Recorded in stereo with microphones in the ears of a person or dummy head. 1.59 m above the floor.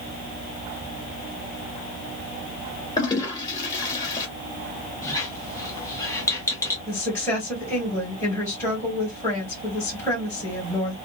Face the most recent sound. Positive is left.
turn(degrees=10)  # may be behind; listen again after turning